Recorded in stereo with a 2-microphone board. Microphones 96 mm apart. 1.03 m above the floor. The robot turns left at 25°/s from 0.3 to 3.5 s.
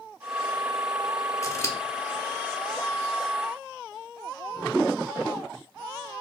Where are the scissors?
35° left (ahead or behind), 0.9 m; by 1.8 s 30° left (ahead or behind), 0.9 m.